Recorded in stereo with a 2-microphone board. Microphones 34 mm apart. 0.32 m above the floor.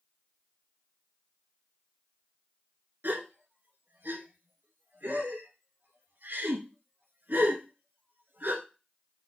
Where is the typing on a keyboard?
No typing on a keyboard in this recording.